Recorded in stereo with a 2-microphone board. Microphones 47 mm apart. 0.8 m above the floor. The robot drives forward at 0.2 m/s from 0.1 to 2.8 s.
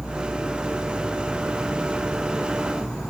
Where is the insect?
30° left (ahead or behind), 1.0 m; by 3.1 s 20° left (ahead or behind), 1.5 m.